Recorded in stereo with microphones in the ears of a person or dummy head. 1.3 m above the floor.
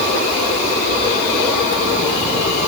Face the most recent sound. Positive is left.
No sound to turn to.